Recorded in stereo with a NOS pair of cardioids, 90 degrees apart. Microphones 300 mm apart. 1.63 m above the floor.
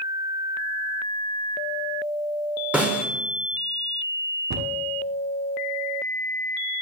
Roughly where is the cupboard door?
Ahead right.